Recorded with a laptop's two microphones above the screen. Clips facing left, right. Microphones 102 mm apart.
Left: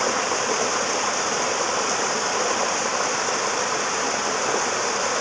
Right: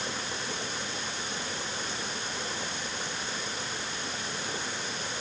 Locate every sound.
0.0 s running water: 90° left